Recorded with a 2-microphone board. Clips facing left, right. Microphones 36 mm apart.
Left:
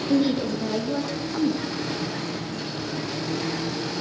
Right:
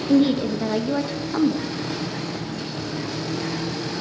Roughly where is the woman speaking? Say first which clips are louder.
Right 4 dB; right.